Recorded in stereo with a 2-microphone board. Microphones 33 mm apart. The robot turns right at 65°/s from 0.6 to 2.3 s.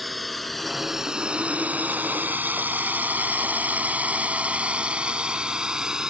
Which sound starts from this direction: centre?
A drone, at 0.0 s.